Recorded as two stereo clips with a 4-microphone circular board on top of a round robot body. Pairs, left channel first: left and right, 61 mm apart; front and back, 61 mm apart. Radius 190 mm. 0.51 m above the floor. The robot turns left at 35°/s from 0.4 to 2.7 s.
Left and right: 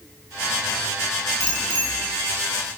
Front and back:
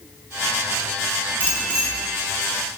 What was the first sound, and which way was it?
A bicycle bell, 125° left.